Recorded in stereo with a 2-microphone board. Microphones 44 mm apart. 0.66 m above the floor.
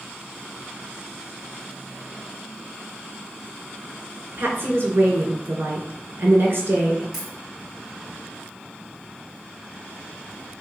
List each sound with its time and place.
4.4 s a woman speaking: 55° right (ahead or behind), 1.9 m
7.1 s a dropped coin: 5° right (ahead or behind), 2.5 m